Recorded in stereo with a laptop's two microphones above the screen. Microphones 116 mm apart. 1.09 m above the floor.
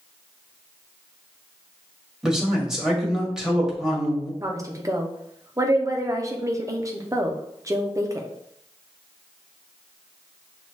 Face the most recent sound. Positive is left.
turn(degrees=-30)  # may be behind; listen again after turning